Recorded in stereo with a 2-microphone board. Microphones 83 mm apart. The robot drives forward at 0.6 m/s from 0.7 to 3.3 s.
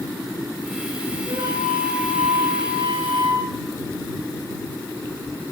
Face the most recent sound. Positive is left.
turn(degrees=-75)  # may be behind; listen again after turning